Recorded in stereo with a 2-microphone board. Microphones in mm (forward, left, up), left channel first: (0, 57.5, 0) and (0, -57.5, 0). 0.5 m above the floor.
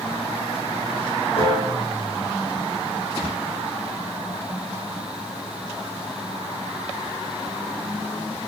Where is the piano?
55° left (ahead or behind), 7.5 m.